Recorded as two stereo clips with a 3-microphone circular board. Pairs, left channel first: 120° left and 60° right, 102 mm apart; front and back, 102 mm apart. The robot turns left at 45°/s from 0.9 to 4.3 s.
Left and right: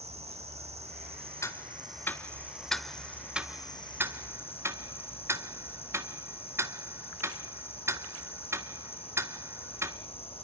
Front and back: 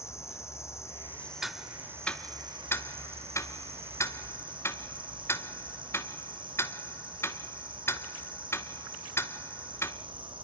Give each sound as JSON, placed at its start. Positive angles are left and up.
{"t": 0.0, "sound": "an insect", "azimuth_deg": -65, "distance_m": 1.7}
{"t": 1.4, "sound": "ticking", "azimuth_deg": 95, "distance_m": 0.9}